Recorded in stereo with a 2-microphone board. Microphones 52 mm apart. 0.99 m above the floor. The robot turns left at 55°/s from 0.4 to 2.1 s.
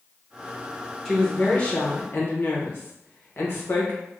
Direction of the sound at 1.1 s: 175° left.